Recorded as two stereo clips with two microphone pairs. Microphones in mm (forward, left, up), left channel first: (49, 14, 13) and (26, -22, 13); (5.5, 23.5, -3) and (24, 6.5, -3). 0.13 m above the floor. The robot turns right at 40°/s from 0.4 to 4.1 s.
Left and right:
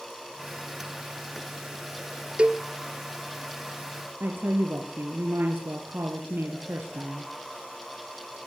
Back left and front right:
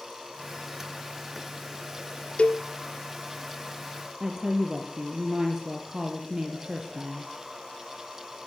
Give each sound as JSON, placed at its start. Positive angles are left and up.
{"t": 2.4, "sound": "a cowbell", "azimuth_deg": 175, "distance_m": 1.1}
{"t": 4.2, "sound": "a woman speaking", "azimuth_deg": -95, "distance_m": 3.5}